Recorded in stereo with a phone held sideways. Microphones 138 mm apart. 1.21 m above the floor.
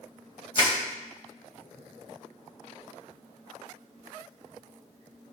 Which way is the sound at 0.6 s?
40° left (ahead or behind).